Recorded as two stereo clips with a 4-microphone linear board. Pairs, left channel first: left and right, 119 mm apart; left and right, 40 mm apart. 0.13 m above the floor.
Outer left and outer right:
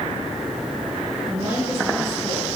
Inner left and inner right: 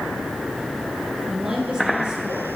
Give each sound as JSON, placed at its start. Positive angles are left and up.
{"t": 1.3, "sound": "a woman speaking", "side_deg": -15, "distance_m": 2.0}